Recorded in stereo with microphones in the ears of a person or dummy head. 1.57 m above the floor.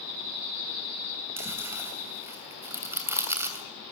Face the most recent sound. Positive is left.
turn(degrees=-15)  # may be behind; listen again after turning